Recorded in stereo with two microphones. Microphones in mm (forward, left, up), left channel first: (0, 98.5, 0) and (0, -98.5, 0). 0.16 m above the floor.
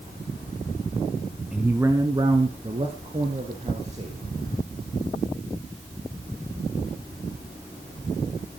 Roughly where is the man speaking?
Centre.